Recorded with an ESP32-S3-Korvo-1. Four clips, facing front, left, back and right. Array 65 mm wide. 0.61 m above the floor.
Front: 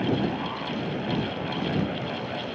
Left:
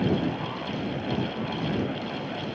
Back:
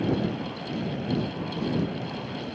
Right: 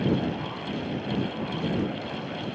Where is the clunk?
I don't hear a clunk.